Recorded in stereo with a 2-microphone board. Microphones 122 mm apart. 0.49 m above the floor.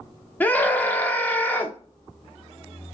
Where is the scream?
15° left (ahead or behind), 0.7 m.